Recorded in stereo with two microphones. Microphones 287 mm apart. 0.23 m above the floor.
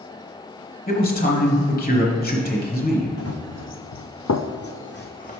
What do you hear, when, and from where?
0.9 s a man speaking: 30° left (ahead or behind), 1.1 m
3.2 s running footsteps: 50° left (ahead or behind), 0.9 m; by 5.4 s 25° left (ahead or behind), 0.8 m